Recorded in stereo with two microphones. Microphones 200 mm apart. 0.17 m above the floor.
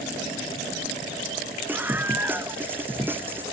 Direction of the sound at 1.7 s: 10° right (ahead or behind).